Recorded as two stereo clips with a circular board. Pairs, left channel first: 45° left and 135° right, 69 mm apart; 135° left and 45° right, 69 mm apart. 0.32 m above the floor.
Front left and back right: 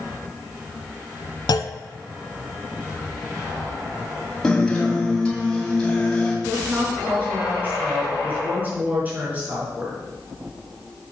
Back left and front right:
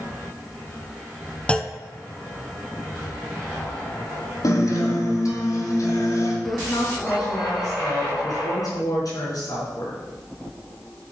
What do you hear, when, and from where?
1.5 s a clunk: 60° left, 0.7 m
4.4 s a guitar: 125° left, 2.5 m
6.5 s a woman speaking: 160° left, 4.5 m